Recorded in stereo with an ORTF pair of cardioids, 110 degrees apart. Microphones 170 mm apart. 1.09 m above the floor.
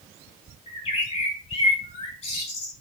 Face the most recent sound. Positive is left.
turn(degrees=40)